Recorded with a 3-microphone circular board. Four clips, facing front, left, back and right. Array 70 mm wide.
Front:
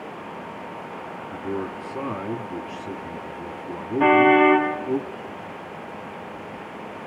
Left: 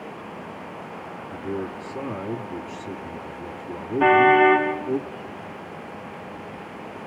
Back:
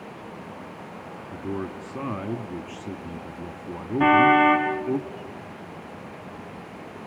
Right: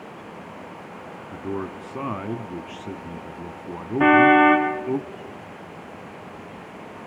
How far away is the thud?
No thud in this recording.